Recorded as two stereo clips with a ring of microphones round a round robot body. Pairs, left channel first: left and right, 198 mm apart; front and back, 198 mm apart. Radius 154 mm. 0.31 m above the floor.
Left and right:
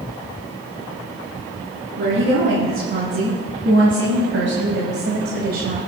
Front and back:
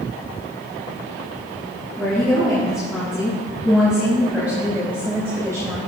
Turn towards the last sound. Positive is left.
turn(degrees=-110)